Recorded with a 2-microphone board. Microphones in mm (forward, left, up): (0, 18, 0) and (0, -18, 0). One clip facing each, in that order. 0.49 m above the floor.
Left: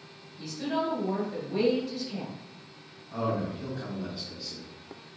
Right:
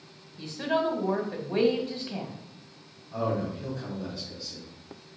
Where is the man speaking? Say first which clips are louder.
Right 1 dB; 15° left (ahead or behind), 3 m.